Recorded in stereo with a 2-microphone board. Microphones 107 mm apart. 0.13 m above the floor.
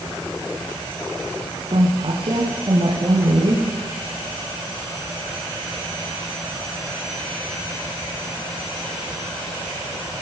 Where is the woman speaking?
50° right (ahead or behind), 6 m.